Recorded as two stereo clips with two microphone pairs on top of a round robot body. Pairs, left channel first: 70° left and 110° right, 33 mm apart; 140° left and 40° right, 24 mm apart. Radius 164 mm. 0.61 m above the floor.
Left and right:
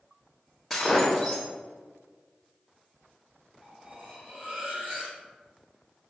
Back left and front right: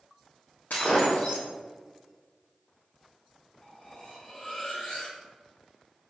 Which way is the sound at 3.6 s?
145° right.